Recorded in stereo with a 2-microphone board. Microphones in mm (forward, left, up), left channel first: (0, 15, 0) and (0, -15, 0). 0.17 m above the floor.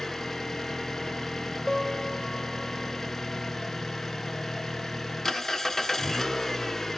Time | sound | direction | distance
0.0 | an engine running | 10° left (ahead or behind) | 0.7 m
1.7 | a piano | 10° left (ahead or behind) | 2.0 m